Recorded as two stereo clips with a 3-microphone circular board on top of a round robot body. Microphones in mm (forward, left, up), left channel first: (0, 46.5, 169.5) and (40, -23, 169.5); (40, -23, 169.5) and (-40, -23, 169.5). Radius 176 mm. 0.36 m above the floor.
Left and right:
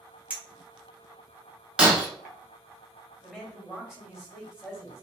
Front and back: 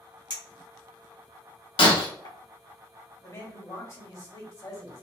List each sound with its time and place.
0.3 s a clink: 10° left, 1.5 m
1.8 s breaking glass: 20° left, 0.6 m
3.2 s a man speaking: 20° left, 1.7 m